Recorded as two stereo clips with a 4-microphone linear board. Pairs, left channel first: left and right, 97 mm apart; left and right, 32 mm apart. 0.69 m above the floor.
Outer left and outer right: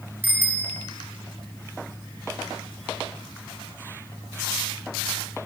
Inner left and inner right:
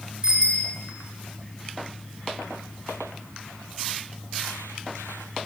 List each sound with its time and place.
0.2 s a bicycle bell: 20° right (ahead or behind), 2.5 m